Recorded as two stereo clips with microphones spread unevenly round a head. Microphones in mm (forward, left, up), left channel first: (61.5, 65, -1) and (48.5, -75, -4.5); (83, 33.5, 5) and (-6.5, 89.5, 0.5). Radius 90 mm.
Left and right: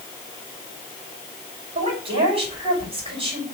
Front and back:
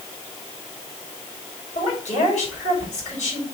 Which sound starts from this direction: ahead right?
A woman speaking, at 1.8 s.